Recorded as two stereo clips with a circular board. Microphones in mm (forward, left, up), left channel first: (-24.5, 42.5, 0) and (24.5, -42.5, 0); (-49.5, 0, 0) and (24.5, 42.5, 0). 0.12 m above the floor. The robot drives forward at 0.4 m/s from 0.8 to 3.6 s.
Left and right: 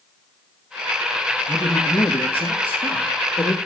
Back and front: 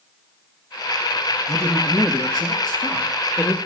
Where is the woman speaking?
170° right, 1.7 m; by 3.6 s 175° right, 2.5 m.